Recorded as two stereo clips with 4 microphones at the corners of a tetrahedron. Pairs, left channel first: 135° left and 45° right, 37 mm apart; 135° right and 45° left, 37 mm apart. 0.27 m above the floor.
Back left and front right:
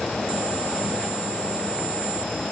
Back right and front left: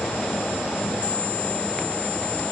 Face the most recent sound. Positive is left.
No sound to turn to.